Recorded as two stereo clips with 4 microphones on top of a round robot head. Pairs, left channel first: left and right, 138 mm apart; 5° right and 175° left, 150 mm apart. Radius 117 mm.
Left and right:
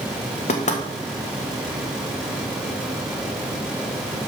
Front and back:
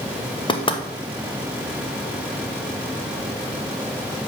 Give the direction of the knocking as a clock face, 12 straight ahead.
10 o'clock.